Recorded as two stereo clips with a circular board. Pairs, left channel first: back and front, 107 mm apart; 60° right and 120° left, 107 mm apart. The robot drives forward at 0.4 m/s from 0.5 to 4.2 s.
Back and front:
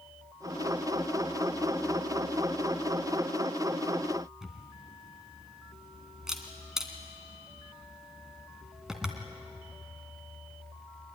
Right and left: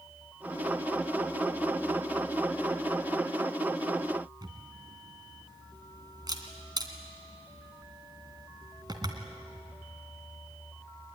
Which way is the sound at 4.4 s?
85° left.